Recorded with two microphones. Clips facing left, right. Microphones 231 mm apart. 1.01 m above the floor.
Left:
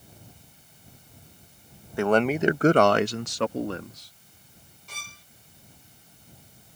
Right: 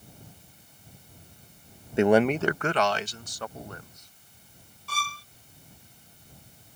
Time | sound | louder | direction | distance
2.0 | a man speaking | right 2 dB | 25° right (ahead or behind) | ?
4.9 | a violin | right 12 dB | 20° left (ahead or behind) | ?